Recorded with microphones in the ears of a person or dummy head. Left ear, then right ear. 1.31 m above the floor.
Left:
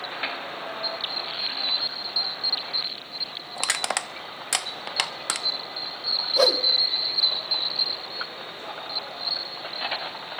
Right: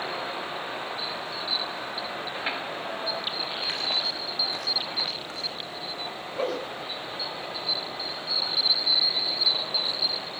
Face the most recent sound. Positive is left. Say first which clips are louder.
# left 9 dB
turn(degrees=65)  # may be behind; listen again after turning